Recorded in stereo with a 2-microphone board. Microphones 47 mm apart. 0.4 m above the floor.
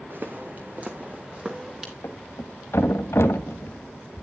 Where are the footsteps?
50° right (ahead or behind), 1.9 m; by 1.9 s 15° right (ahead or behind), 2.5 m.